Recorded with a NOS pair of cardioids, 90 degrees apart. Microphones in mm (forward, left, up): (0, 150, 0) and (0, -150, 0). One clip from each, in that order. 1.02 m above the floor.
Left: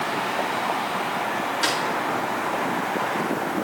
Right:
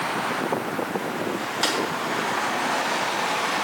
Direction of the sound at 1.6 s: 20° right.